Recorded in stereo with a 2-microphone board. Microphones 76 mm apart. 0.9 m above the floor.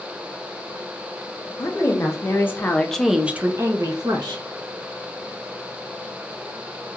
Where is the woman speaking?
45° left (ahead or behind), 1.1 m; by 4.4 s 65° right (ahead or behind), 0.8 m.